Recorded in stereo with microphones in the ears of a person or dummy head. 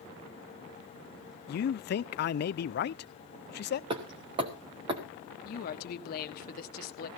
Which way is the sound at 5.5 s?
55° left (ahead or behind).